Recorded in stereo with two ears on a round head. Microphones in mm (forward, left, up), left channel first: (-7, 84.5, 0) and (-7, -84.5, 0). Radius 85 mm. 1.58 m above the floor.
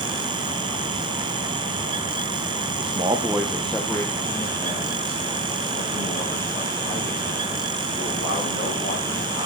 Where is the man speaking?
35° right (ahead or behind), 0.8 m; by 9.5 s 45° left (ahead or behind), 5 m.